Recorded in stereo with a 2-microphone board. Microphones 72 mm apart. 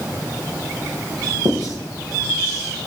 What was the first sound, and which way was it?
Writing, 70° right (ahead or behind).